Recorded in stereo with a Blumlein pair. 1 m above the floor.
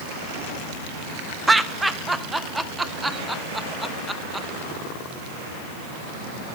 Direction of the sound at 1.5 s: 5° right.